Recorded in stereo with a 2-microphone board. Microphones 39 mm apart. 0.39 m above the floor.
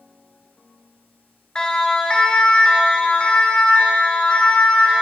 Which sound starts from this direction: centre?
A siren, at 1.6 s.